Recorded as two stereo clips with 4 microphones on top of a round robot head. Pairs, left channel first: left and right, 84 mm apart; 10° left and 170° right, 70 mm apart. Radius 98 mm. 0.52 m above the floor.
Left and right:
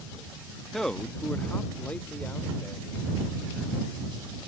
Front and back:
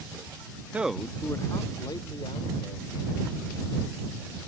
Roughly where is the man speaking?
Behind.